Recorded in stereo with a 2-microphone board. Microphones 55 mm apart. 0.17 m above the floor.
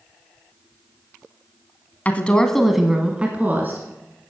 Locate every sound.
2.0 s a woman speaking: 25° left (ahead or behind), 1.3 m; by 3.8 s 35° right (ahead or behind), 1.8 m